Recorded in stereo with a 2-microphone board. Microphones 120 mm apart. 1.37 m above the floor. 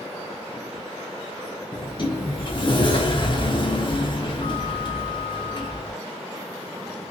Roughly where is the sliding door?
Left.